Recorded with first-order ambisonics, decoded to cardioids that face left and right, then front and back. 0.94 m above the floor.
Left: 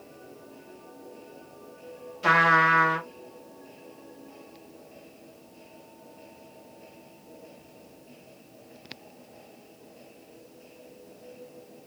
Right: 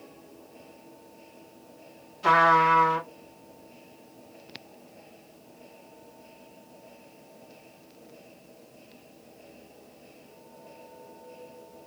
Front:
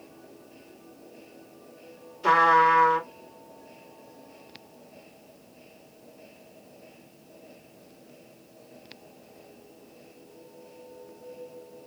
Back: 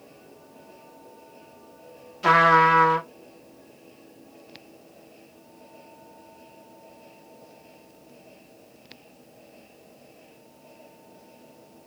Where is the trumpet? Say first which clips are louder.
Even, back 2 dB; 170° left, 1.4 m.